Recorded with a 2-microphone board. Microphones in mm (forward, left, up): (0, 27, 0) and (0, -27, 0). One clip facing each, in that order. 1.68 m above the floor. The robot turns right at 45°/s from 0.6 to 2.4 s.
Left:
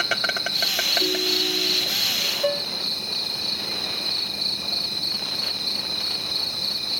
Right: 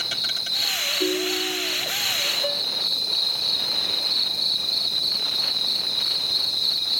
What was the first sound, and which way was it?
An insect, 50° left.